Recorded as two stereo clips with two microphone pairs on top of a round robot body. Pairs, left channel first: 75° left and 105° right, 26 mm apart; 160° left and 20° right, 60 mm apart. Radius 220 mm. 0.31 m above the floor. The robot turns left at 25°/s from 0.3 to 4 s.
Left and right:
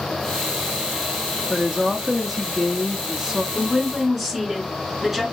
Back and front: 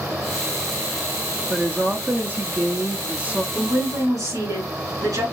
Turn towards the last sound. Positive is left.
turn(degrees=-25)